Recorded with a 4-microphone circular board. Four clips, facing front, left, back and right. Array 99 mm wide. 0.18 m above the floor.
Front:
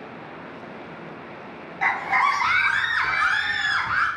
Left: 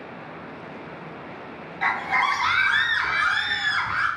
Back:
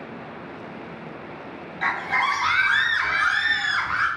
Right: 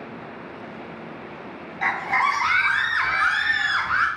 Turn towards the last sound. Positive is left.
turn(degrees=-65)